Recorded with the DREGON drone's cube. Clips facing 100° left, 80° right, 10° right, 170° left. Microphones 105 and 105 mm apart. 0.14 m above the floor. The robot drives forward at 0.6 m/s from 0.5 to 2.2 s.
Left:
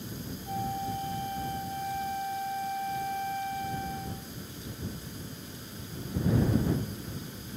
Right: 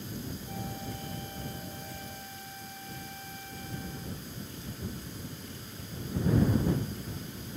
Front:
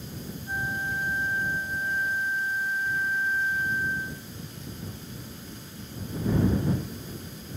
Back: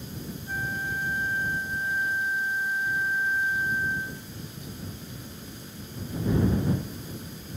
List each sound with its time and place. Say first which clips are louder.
0.5 s a flute: left 7 dB, front 1 dB; 55° left; by 4.3 s 85° left